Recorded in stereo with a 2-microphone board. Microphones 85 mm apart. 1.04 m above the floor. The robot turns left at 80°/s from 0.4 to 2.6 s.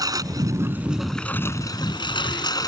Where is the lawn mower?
130° right; by 2.7 s 55° left.